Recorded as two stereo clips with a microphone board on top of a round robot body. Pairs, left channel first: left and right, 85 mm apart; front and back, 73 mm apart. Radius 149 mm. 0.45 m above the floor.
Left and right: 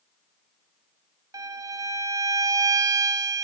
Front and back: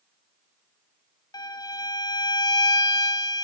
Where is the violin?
40° right, 0.6 m.